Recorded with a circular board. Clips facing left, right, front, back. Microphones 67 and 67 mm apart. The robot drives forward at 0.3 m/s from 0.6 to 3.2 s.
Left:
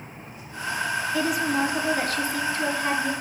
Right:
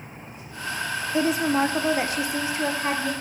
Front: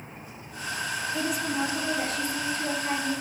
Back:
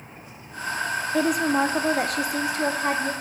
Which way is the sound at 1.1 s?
150° right.